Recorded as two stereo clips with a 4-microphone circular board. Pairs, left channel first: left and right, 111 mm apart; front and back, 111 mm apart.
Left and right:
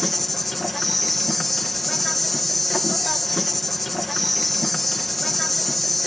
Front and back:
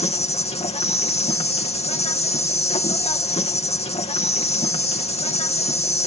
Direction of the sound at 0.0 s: Straight ahead.